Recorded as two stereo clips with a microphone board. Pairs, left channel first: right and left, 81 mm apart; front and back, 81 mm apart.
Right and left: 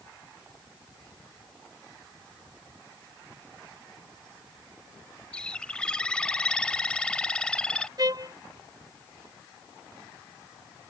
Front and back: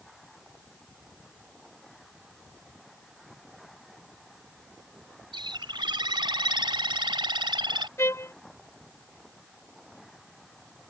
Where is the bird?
170° right.